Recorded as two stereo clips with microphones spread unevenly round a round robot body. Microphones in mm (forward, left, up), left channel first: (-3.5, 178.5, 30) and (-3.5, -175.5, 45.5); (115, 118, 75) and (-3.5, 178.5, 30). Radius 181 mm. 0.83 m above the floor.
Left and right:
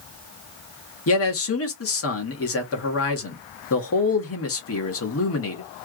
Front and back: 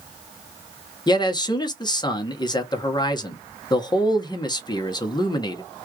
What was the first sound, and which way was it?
A man speaking, 40° left.